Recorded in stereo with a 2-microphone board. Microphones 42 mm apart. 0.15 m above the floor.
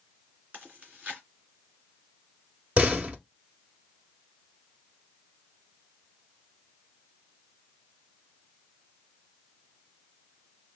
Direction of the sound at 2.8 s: 30° right (ahead or behind).